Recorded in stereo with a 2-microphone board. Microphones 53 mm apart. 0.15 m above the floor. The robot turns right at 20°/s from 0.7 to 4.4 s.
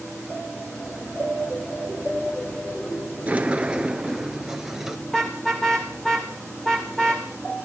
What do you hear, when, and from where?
3.3 s a sliding door: 25° right (ahead or behind), 1.6 m; by 5.0 s 5° right (ahead or behind), 1.6 m
5.1 s a car horn: 10° left (ahead or behind), 5.5 m